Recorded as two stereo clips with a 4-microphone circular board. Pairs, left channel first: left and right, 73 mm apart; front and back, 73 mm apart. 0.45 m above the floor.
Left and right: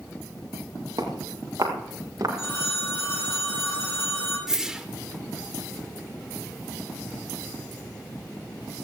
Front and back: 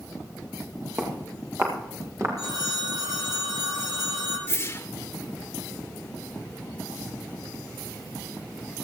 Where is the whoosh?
15° right, 1.1 m.